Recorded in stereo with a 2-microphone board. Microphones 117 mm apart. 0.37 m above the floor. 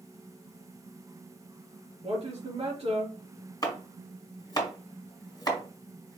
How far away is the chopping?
About 1.6 m.